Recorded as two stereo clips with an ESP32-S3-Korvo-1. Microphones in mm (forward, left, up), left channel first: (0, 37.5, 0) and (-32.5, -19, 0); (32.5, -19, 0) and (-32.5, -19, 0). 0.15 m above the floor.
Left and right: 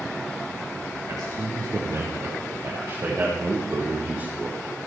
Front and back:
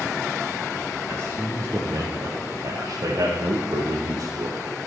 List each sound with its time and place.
1.1 s a man speaking: 135° right, 5 m; by 4.6 s 170° left, 5.5 m